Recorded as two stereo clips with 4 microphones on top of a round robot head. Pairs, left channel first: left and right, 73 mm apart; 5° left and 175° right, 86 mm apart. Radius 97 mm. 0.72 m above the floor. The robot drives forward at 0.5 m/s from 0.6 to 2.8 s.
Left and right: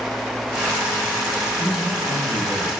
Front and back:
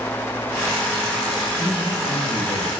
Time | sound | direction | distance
1.6 | a man speaking | 5° right | 2.5 m